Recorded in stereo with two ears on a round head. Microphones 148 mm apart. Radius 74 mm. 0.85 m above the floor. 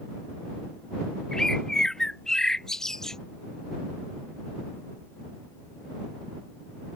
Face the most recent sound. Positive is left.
turn(degrees=5)  # may be behind; listen again after turning